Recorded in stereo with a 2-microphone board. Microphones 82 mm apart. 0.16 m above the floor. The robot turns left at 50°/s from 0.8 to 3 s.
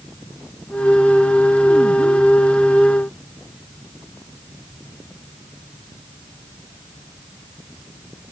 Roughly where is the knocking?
No knocking in this recording.